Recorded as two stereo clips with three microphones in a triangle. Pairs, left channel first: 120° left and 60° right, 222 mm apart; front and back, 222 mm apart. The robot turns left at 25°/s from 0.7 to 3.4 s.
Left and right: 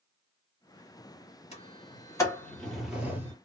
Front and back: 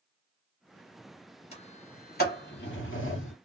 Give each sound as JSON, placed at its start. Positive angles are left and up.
{"t": 1.5, "sound": "a sliding door", "azimuth_deg": 60, "distance_m": 1.4}